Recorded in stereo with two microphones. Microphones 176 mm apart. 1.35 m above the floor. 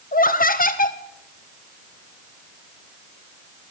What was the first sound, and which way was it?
Laughter, 55° left (ahead or behind).